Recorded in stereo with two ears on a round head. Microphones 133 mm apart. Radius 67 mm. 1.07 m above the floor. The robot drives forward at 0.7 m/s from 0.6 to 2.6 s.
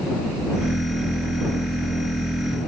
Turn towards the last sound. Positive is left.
No sound to turn to.